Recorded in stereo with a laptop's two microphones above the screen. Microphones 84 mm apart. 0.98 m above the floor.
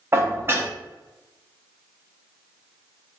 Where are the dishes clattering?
30° right (ahead or behind), 0.9 m.